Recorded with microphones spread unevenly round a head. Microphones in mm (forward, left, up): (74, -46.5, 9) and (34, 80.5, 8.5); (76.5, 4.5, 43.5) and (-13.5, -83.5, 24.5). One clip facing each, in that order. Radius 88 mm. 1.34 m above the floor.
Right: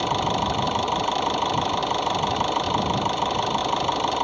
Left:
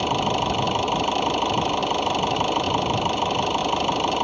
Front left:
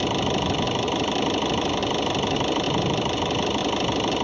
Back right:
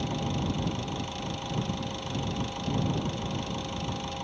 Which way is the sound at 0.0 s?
30° left.